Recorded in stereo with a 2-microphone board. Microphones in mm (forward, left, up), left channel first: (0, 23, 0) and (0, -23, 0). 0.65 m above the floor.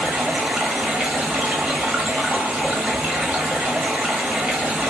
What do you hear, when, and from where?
0.0 s running water: 35° right (ahead or behind), 1.0 m